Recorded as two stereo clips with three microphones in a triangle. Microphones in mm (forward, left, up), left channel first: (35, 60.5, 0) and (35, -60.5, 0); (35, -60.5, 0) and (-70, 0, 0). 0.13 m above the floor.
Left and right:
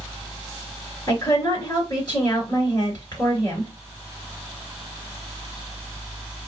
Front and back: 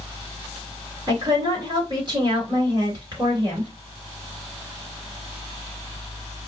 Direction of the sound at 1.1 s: 125° left.